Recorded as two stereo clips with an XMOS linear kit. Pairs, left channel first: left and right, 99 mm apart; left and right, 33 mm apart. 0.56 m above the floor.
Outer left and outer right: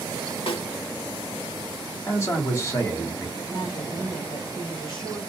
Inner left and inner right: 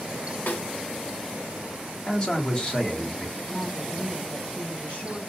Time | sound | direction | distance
0.5 | a snare drum | 70° left (ahead or behind) | 1.1 m
2.1 | a man speaking | 30° left (ahead or behind) | 1.4 m
3.4 | a woman speaking | 45° left (ahead or behind) | 3 m